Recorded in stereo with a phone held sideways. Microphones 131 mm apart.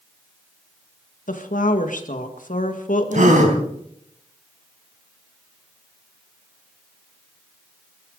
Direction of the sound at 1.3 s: 85° left.